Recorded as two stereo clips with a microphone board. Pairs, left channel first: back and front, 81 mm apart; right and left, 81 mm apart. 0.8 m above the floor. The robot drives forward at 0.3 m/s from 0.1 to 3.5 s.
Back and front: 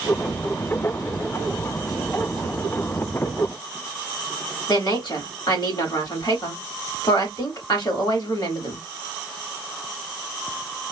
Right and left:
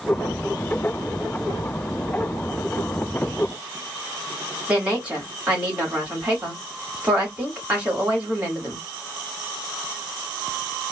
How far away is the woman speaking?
About 1.9 m.